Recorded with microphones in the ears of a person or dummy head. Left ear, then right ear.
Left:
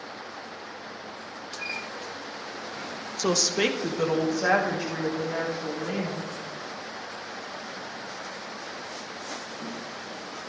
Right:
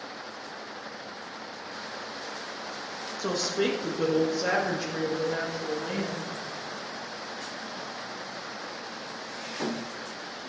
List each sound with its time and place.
3.2 s a woman speaking: 80° left, 1.2 m; by 6.3 s 25° left (ahead or behind), 4 m